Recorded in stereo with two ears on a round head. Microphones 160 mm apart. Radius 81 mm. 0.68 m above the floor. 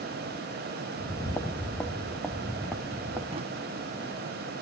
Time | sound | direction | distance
1.0 | footsteps | 25° left (ahead or behind) | 1.6 m
3.3 | a drawer | 35° right (ahead or behind) | 1.3 m